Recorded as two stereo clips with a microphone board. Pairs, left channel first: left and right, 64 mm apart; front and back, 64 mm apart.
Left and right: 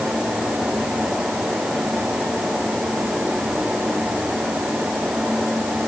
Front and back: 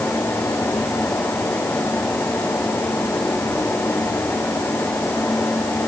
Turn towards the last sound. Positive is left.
No sound to turn to.